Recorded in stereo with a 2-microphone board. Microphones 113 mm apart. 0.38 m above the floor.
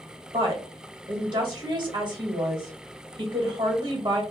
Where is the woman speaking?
40° right (ahead or behind), 1.7 m.